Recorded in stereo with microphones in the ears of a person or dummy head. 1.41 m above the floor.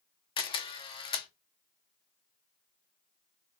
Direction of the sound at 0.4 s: 25° left (ahead or behind).